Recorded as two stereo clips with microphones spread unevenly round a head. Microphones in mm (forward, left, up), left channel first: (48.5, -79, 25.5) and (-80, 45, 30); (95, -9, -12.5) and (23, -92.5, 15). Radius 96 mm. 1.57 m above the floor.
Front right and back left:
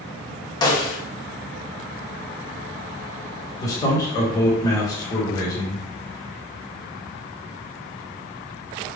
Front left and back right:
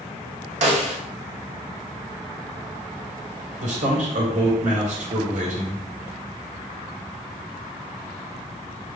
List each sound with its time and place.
0.6 s a snare drum: 115° right, 1.4 m
3.6 s a man speaking: 115° right, 1.9 m